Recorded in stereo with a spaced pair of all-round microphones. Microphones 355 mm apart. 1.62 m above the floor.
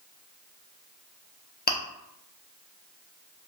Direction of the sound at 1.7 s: 30° left (ahead or behind).